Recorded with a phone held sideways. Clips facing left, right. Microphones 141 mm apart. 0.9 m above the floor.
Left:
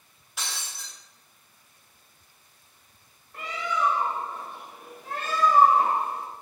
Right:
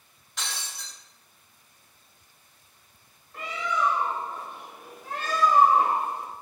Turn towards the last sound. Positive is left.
turn(degrees=5)  # may be behind; listen again after turning